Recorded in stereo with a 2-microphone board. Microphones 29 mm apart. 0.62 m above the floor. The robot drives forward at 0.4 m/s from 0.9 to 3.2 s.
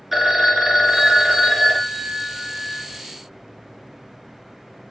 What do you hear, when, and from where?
0.1 s a phone ringing: 10° right (ahead or behind), 0.8 m; by 3.0 s 5° right (ahead or behind), 1.6 m